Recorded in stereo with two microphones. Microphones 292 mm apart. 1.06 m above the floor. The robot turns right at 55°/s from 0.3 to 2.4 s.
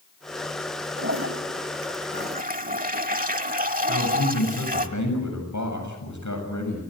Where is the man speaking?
80° left, 7.5 m.